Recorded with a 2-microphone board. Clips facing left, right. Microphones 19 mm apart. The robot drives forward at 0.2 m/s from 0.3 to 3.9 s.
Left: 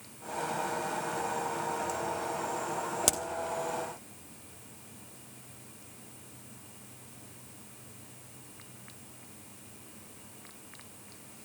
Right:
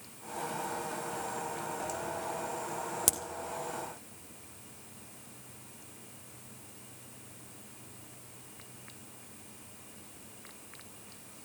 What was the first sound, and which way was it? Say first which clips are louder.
A crack: left 4 dB; 25° left (ahead or behind).